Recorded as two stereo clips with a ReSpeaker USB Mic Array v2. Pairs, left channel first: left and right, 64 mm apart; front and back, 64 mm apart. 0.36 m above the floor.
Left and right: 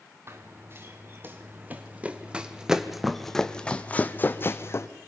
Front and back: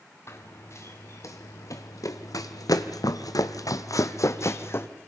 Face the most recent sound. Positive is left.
turn(degrees=50)